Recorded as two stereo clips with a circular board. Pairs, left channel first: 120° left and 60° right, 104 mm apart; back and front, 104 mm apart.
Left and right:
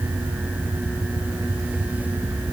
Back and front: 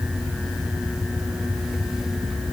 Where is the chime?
I don't hear a chime.